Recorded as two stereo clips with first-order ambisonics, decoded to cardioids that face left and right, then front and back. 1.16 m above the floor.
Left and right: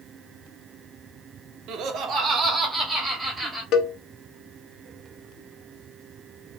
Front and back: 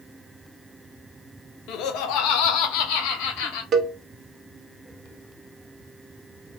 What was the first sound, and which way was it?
Laughter, 45° right.